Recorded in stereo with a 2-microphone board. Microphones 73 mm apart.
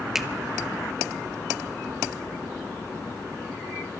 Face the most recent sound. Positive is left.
turn(degrees=-5)  # may be behind; listen again after turning